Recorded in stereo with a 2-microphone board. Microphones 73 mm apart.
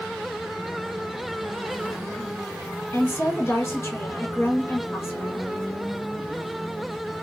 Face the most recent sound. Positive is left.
turn(degrees=35)  # may be behind; listen again after turning